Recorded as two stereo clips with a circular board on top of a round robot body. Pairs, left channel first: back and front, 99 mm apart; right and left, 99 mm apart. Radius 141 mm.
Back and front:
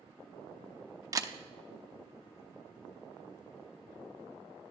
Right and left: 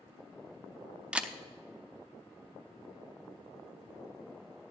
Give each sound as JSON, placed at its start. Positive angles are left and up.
{"t": 1.1, "sound": "a camera shutter", "azimuth_deg": 20, "distance_m": 0.8}